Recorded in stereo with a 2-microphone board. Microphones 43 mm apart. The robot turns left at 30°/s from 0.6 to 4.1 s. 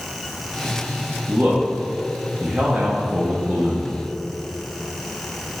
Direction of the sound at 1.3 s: 30° right (ahead or behind).